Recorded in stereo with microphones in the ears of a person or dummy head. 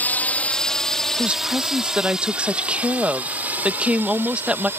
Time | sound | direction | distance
0.0 | a drone | 10° left (ahead or behind) | ?
1.2 | a woman speaking | 5° right (ahead or behind) | ?